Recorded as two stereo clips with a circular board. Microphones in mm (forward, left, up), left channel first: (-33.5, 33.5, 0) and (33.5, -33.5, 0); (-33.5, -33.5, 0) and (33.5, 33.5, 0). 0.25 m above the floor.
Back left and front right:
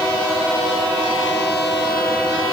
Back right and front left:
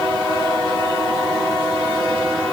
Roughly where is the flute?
I don't hear a flute.